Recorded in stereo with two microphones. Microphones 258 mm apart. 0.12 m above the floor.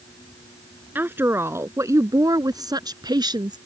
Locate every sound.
0.9 s a woman speaking: 10° right (ahead or behind); by 3.6 s 15° right (ahead or behind)